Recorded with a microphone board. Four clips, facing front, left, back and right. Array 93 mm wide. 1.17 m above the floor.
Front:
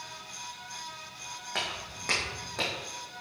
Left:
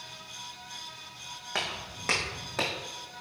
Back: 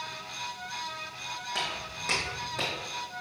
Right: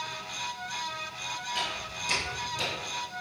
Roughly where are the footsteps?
Left.